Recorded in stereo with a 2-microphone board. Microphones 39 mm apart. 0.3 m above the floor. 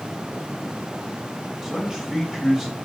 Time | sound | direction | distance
1.6 | a man speaking | 15° right (ahead or behind) | 1.5 m